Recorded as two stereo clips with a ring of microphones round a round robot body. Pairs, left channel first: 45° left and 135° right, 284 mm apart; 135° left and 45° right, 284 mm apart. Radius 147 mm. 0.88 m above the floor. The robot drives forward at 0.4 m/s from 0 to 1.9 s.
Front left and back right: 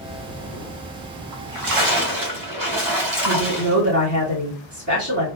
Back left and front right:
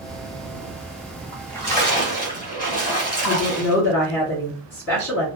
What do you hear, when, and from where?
1.3 s a splash: 140° right, 1.2 m; by 3.8 s 150° right, 1.4 m
3.2 s a woman speaking: 175° left, 2 m